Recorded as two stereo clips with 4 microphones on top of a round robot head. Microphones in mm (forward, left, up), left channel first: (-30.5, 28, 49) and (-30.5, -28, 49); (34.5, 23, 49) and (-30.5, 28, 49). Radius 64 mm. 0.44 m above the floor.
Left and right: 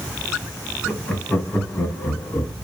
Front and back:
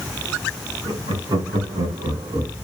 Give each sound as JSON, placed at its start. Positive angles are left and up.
{"t": 0.8, "sound": "laughter", "azimuth_deg": 165, "distance_m": 4.0}